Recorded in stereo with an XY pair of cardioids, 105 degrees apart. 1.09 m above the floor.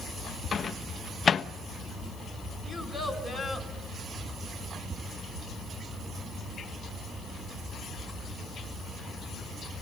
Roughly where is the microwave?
Ahead left.